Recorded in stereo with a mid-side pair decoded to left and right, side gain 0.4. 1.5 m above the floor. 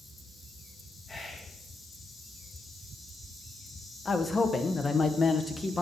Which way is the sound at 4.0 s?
35° left.